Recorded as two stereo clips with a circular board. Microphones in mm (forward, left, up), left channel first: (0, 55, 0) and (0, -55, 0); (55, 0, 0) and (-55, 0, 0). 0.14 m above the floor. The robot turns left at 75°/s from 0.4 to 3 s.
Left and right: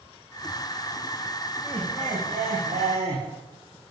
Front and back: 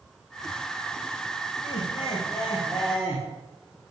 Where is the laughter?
5° right, 7.5 m; by 3.2 s 105° right, 7.5 m.